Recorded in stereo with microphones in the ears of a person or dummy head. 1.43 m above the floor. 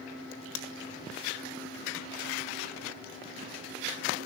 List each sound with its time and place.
0.3 s a crack: 75° left (ahead or behind), 1.7 m